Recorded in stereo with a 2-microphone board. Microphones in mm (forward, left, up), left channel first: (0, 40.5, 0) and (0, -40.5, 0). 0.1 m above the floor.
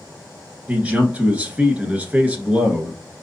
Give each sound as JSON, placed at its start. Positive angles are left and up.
{"t": 0.7, "sound": "a man speaking", "side_deg": -20, "distance_m": 1.1}